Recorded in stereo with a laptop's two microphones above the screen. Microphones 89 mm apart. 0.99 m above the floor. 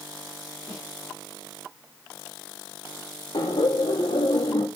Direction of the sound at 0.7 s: Centre (ahead or behind).